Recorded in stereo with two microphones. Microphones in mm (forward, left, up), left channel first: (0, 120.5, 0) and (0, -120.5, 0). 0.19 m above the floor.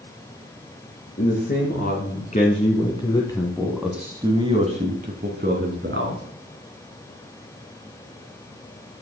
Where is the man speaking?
40° left (ahead or behind), 2.5 m; by 6.2 s 50° right (ahead or behind), 1.8 m.